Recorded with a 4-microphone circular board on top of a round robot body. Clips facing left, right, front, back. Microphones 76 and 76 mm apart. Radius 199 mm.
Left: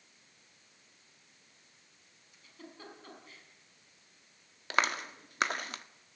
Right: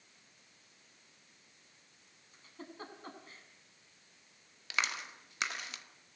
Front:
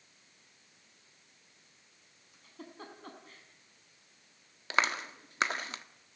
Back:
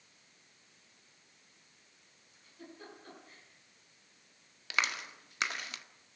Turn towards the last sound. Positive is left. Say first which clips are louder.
# left 6 dB, front 4 dB
turn(degrees=50)